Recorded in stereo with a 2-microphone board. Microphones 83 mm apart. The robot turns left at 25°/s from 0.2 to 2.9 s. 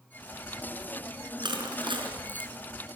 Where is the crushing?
65° right (ahead or behind), 4.5 m; by 2.5 s 80° right, 4.5 m.